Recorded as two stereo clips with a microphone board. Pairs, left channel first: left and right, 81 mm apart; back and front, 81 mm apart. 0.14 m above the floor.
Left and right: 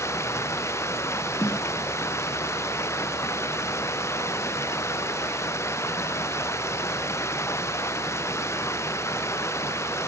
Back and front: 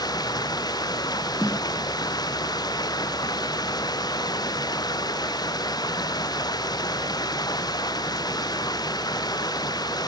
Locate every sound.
0.0 s running water: 145° left
1.4 s a snare drum: 125° left